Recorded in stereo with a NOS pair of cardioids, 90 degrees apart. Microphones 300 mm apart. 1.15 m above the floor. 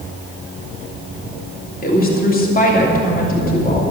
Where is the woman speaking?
30° left, 3 m.